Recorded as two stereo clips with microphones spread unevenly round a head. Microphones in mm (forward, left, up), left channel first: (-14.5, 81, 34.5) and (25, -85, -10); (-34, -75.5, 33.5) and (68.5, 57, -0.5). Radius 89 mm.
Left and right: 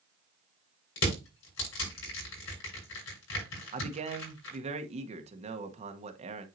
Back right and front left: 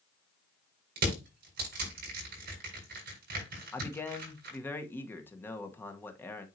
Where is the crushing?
90° left, 6.5 m.